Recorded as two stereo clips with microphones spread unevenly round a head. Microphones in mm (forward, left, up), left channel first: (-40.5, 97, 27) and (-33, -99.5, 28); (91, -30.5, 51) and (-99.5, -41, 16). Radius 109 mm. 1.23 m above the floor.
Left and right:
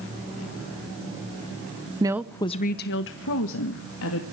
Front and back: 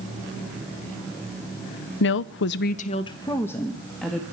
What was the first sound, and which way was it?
A woman speaking, 20° right.